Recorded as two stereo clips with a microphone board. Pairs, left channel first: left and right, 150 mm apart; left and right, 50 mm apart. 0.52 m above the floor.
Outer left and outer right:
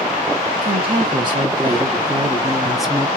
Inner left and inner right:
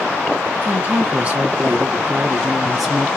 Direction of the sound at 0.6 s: 40° right (ahead or behind).